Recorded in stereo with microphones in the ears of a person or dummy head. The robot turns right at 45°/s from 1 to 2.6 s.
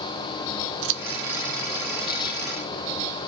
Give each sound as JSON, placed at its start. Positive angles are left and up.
{"t": 0.8, "sound": "scissors", "side_deg": -80, "distance_m": 0.6}